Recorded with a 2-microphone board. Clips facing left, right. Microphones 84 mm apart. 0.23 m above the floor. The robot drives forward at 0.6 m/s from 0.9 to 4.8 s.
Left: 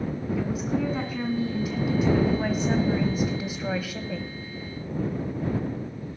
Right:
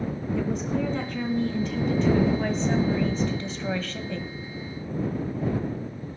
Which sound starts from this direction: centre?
A woman speaking, at 0.4 s.